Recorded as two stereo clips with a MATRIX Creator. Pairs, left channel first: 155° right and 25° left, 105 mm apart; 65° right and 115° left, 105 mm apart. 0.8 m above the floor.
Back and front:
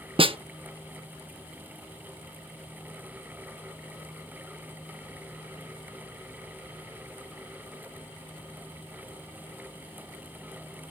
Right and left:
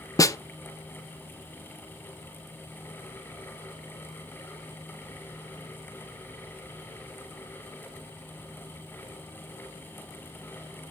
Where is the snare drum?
10° right, 0.5 m.